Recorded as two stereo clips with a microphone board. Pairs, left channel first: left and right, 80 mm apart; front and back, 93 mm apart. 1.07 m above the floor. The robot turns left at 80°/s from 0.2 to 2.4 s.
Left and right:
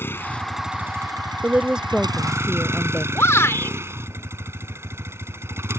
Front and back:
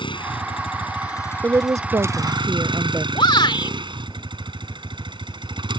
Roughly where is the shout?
Ahead left.